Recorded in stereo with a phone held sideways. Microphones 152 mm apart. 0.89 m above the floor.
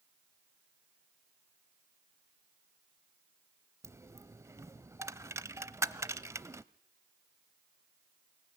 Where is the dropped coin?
20° right (ahead or behind), 0.7 m.